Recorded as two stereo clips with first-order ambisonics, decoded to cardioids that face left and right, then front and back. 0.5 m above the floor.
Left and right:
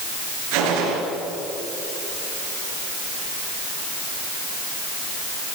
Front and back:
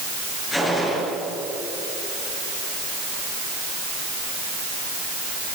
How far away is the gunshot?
About 5.5 m.